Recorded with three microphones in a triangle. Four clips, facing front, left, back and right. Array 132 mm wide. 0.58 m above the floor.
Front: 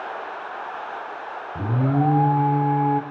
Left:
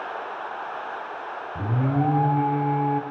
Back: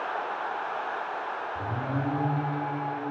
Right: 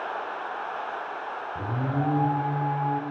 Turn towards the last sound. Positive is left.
turn(degrees=15)